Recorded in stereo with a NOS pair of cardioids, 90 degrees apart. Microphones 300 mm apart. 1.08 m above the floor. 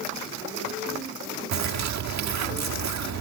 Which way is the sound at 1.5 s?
60° right.